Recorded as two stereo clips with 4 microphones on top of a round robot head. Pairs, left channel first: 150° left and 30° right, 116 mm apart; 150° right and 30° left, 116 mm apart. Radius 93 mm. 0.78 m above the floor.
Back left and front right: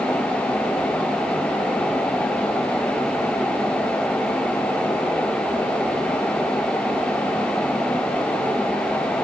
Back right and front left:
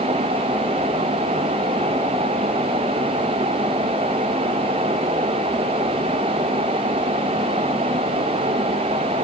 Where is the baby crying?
No baby crying in this recording.